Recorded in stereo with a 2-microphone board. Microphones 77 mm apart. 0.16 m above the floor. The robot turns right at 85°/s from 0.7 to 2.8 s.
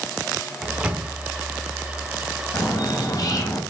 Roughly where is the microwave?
Centre.